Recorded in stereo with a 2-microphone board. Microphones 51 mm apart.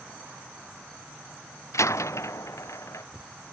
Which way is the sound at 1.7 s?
85° left.